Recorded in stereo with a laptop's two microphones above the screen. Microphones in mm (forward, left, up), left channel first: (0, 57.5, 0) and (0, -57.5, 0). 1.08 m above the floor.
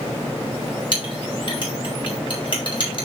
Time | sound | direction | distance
0.9 | a clink | 45° left (ahead or behind) | 4.5 m